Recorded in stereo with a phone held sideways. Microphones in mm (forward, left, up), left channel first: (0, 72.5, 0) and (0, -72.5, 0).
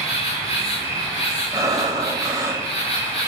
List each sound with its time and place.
0.0 s an insect: 45° left (ahead or behind), 1.7 m
1.5 s breathing: 20° right (ahead or behind), 0.7 m